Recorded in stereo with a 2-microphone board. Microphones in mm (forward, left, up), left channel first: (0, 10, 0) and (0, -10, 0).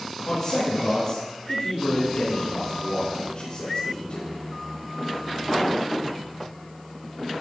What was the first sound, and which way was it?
A man speaking, 25° left (ahead or behind).